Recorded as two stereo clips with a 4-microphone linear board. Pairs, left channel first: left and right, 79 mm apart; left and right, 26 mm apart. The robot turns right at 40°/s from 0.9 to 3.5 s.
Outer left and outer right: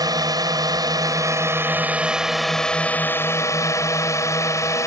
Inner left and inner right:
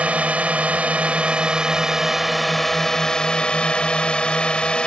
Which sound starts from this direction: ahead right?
A drone, at 0.0 s.